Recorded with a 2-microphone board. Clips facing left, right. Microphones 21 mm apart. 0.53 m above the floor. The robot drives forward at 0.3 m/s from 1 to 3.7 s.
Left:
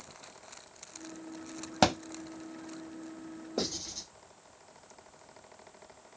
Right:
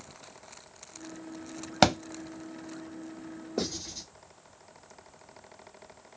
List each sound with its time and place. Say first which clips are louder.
1.8 s a thud: right 3 dB; 25° right (ahead or behind), 0.8 m; by 2.0 s 30° right (ahead or behind), 0.8 m
3.6 s writing: right 1 dB; 5° right (ahead or behind), 1.5 m